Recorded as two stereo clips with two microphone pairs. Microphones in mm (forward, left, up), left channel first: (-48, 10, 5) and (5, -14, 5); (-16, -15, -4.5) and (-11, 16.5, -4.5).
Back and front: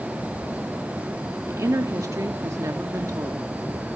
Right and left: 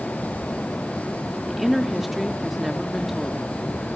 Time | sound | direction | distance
1.5 | a woman speaking | 5° right | 1.2 m